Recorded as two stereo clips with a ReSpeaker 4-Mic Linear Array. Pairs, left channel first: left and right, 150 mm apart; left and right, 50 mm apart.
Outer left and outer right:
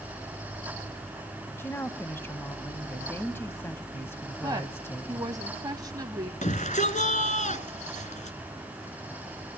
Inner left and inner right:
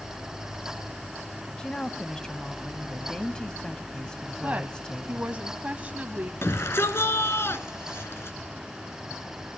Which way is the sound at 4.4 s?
25° right (ahead or behind).